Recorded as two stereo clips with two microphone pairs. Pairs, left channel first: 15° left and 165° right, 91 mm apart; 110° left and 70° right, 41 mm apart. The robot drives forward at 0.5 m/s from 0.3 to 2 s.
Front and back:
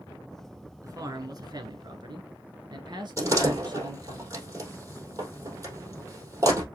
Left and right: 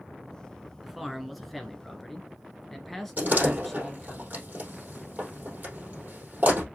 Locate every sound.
0.8 s a man speaking: 160° right, 1.2 m; by 4.2 s 170° right, 1.6 m
3.2 s a door slam: 115° right, 3 m